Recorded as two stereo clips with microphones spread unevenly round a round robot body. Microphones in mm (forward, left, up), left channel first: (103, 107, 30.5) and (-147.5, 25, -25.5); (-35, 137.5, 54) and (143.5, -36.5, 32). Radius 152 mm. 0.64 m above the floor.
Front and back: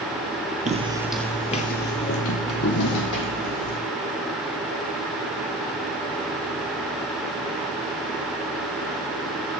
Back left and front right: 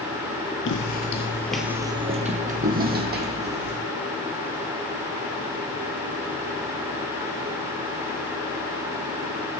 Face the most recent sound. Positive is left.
turn(degrees=5)